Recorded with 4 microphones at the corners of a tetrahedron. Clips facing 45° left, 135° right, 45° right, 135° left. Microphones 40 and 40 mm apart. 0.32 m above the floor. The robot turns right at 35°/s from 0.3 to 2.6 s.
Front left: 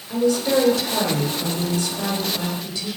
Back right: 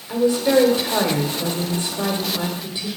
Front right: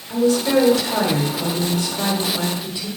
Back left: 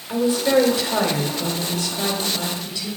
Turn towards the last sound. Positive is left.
turn(degrees=-100)